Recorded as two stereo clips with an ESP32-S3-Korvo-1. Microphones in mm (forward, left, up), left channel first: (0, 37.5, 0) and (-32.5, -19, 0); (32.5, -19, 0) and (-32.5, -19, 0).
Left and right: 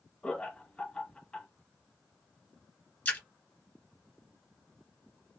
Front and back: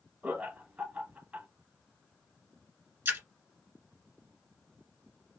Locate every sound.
0.2 s laughter: 120° left, 1.4 m
3.0 s a splash: 125° left, 1.9 m